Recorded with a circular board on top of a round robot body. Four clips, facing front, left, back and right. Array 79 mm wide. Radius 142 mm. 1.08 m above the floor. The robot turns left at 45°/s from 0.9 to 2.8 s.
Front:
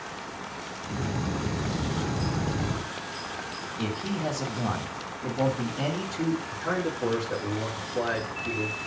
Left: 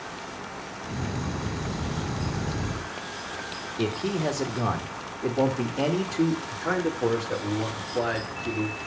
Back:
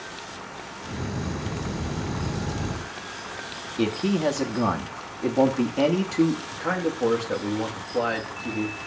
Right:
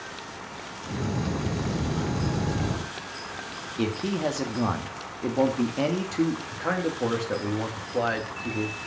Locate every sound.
3.8 s a man speaking: 145° right, 1.9 m
6.5 s a man speaking: 125° right, 2.5 m